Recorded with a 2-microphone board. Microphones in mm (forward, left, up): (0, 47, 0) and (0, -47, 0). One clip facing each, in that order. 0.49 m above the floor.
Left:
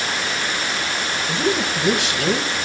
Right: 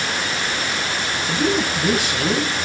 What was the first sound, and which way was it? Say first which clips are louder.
A woman speaking: right 1 dB; 5° right (ahead or behind).